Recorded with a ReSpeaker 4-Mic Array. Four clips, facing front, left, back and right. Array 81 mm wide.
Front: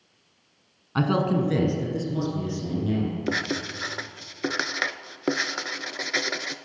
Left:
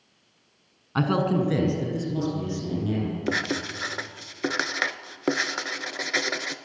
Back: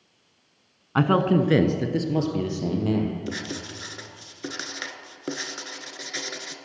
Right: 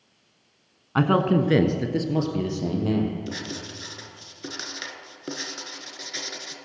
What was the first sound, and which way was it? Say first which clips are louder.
A man speaking: right 3 dB, back 3 dB; 145° right.